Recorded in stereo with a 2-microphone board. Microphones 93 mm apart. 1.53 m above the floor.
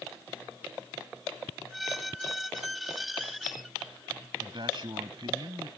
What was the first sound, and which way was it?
A squeak, centre (ahead or behind).